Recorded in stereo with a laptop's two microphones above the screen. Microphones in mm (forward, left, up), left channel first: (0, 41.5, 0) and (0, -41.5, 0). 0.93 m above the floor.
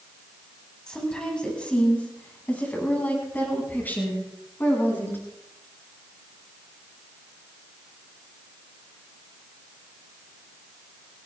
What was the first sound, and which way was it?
A woman speaking, 10° left (ahead or behind).